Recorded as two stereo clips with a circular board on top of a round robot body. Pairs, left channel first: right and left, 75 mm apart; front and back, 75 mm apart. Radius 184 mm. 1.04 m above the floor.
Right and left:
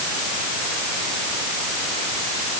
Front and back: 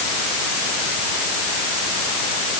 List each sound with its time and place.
Only background noise.